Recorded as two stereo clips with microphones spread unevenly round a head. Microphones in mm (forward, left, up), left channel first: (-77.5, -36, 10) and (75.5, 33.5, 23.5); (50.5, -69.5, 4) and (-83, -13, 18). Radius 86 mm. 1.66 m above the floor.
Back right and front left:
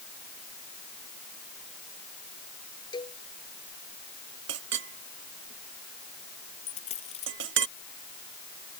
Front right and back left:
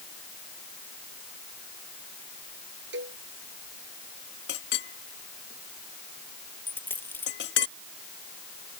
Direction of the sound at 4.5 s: 10° left.